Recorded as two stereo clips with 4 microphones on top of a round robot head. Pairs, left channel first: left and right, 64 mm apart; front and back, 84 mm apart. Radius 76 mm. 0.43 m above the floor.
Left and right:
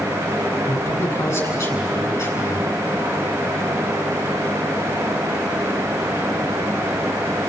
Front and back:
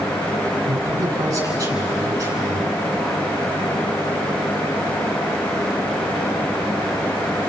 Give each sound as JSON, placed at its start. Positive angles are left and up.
{"t": 0.7, "sound": "a man speaking", "azimuth_deg": 125, "distance_m": 6.5}